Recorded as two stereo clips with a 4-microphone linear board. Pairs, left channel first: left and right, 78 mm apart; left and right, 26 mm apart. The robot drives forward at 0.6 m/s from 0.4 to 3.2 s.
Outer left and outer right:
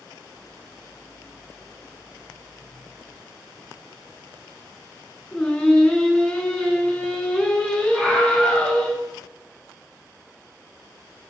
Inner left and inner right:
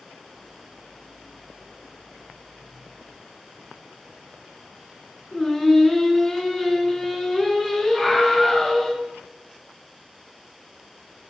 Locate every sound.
5.3 s singing: 15° left (ahead or behind), 1.6 m
7.9 s a scream: 5° right (ahead or behind), 4.5 m